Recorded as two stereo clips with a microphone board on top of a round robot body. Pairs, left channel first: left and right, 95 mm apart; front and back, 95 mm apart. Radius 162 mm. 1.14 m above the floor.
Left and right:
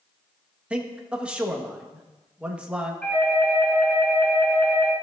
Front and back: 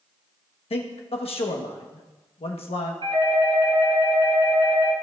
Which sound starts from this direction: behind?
A doorbell, at 3.0 s.